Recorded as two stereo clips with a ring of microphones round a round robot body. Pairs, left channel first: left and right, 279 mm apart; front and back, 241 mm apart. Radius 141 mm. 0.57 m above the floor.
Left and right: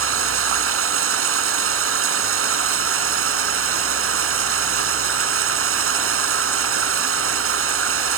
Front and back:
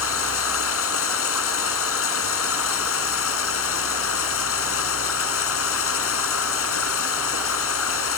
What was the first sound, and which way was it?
Running water, 45° right.